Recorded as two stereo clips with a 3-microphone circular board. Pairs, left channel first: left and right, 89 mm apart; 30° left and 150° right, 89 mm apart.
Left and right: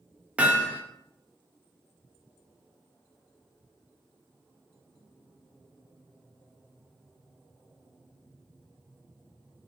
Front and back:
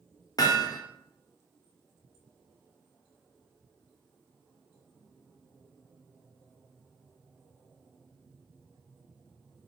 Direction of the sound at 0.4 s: 15° right.